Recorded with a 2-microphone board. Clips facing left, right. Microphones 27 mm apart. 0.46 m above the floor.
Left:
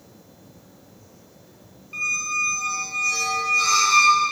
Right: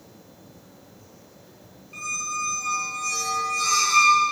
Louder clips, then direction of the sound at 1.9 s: Left 5 dB; 25° left (ahead or behind).